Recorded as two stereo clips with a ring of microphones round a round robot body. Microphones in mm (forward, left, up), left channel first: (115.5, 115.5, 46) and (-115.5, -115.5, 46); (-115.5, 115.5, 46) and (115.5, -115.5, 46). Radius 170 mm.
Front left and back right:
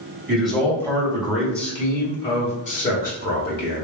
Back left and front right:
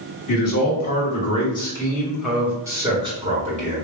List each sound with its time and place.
0.3 s a man speaking: 160° left, 1.8 m; by 3.9 s 5° left, 2.0 m